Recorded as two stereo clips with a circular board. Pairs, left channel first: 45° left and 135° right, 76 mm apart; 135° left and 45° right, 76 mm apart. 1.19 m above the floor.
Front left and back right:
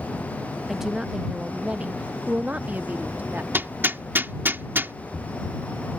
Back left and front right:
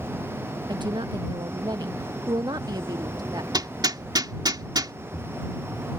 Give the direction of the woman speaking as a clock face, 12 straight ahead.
2 o'clock.